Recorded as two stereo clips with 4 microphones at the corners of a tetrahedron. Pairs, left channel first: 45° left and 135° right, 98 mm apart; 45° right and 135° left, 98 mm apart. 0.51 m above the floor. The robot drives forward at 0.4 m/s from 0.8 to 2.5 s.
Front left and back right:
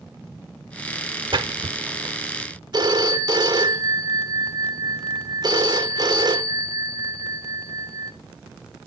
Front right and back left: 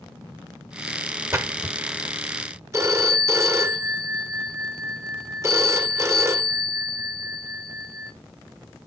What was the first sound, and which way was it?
A splash, 165° right.